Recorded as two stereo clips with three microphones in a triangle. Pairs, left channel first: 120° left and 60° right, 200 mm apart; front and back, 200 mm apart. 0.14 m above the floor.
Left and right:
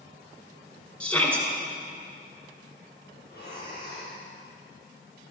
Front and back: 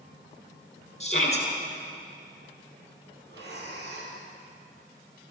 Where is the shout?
40° left, 2 m.